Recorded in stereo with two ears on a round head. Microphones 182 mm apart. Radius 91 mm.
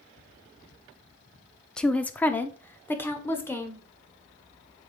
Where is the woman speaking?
5° left (ahead or behind), 0.7 m; by 3.9 s 10° left (ahead or behind), 2 m.